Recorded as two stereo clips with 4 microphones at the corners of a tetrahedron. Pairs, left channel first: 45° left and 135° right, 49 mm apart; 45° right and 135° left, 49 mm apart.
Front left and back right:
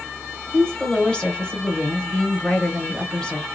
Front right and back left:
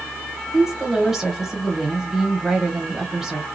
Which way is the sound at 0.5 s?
70° left.